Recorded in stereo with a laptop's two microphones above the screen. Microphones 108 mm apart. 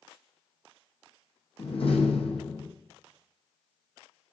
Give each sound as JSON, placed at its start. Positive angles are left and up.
{"t": 1.6, "sound": "a door slam", "side_deg": 60, "distance_m": 0.7}